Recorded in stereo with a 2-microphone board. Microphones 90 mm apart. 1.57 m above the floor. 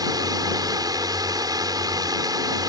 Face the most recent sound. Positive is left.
turn(degrees=-50)  # may be behind; listen again after turning